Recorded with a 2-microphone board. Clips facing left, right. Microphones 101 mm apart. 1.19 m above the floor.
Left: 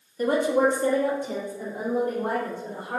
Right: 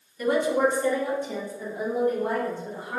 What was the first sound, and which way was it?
A woman speaking, 35° left (ahead or behind).